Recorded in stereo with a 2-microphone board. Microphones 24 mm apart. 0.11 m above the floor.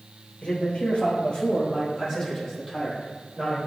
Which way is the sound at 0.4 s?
60° left (ahead or behind).